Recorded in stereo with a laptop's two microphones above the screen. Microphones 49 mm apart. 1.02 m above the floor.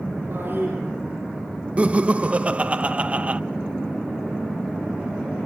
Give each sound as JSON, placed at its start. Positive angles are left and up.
{"t": 0.3, "sound": "a toilet flushing", "side_deg": -60, "distance_m": 6.0}
{"t": 1.8, "sound": "laughter", "side_deg": -30, "distance_m": 0.5}